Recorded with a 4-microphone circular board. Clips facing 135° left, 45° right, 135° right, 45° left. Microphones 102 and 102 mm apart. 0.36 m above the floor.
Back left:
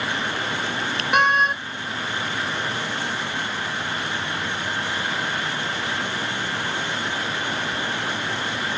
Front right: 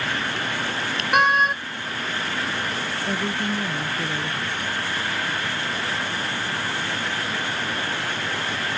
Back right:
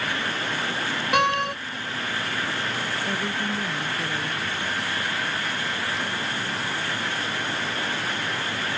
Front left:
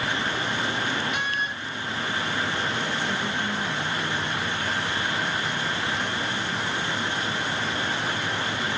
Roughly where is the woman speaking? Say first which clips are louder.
Front right 3 dB, even; right.